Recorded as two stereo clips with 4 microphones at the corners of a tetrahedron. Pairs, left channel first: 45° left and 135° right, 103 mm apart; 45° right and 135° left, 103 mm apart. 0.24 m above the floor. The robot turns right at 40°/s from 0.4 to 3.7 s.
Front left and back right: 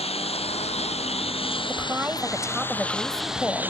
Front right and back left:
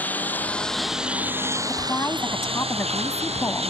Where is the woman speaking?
90° right; by 3.7 s 10° right.